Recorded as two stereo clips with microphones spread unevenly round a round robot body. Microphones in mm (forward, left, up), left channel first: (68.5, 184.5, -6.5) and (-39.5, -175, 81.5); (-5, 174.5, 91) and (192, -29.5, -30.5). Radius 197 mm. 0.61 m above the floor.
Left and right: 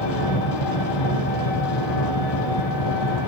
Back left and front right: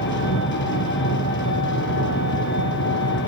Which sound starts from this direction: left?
An engine running, at 0.0 s.